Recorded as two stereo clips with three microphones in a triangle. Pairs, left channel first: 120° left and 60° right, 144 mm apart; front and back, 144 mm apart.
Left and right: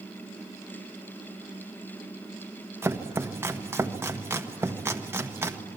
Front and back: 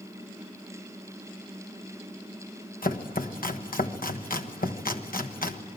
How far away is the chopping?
About 1.4 m.